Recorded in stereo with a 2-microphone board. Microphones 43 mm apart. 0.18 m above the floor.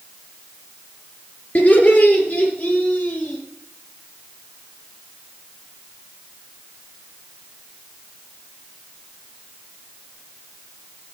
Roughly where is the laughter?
Left.